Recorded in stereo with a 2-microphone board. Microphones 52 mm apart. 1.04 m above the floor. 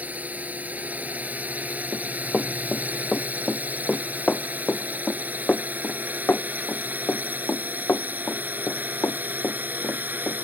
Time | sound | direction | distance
0.0 | a drone | 30° right (ahead or behind) | ?
1.9 | running footsteps | centre (ahead or behind) | ?